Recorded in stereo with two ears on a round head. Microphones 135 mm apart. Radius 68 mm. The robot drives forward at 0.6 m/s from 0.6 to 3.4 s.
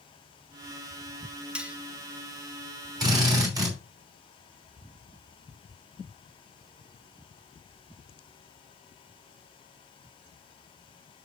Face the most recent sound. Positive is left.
turn(degrees=-25)  # may be behind; listen again after turning